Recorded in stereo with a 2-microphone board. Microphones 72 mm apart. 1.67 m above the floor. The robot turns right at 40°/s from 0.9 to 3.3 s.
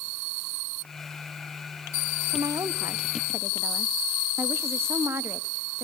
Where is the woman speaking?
75° right, 0.7 m; by 5.9 s 35° right, 0.7 m.